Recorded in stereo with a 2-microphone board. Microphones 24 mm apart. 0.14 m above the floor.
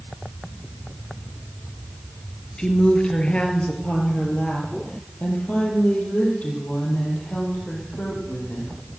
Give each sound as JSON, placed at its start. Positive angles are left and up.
{"t": 2.6, "sound": "a woman speaking", "side_deg": 40, "distance_m": 2.5}